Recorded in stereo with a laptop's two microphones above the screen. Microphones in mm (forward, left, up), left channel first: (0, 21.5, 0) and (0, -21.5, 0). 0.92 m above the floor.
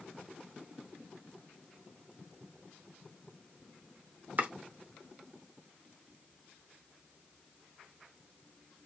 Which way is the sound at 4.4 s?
45° right (ahead or behind).